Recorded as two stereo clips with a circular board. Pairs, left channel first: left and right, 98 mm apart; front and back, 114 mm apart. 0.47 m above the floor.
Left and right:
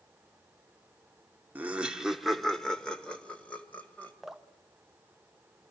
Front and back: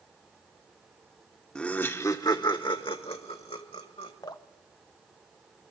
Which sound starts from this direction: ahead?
Dripping, at 4.2 s.